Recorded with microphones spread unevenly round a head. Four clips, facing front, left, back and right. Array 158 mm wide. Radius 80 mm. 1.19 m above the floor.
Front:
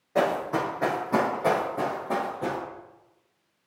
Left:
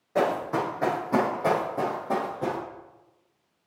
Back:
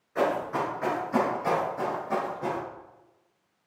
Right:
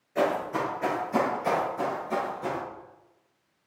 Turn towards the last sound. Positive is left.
turn(degrees=60)